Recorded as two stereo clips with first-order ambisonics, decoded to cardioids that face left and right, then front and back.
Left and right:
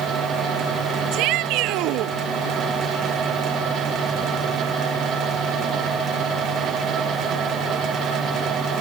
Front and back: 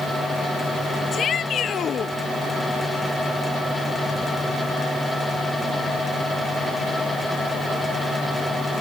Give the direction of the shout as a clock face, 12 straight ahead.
2 o'clock.